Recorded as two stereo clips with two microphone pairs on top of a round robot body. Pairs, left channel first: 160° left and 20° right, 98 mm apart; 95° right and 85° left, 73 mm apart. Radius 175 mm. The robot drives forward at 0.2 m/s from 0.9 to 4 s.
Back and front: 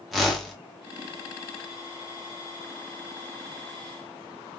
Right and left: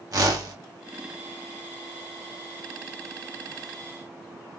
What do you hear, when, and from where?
0.1 s a whoosh: 90° left, 0.9 m